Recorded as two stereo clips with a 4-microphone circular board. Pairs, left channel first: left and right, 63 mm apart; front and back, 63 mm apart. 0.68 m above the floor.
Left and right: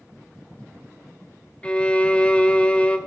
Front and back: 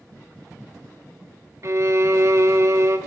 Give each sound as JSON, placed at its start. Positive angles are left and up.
{"t": 1.6, "sound": "a violin", "azimuth_deg": 155, "distance_m": 0.7}